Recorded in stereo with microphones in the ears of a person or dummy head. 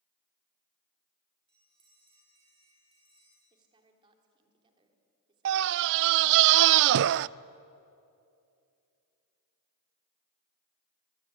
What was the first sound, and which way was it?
A bell, 25° right (ahead or behind).